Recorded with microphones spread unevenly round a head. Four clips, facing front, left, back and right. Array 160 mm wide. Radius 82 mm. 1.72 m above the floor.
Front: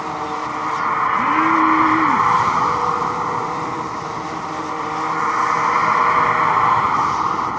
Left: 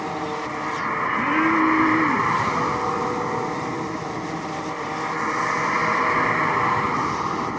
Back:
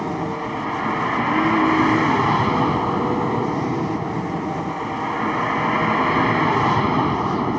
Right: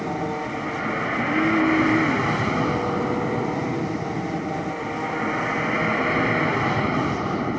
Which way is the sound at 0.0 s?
155° right.